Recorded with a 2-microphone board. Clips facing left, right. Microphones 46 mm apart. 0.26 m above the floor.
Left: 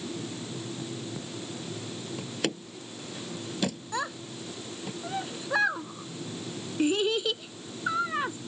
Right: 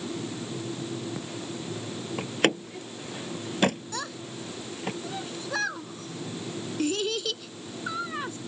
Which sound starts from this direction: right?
A door slam, at 2.2 s.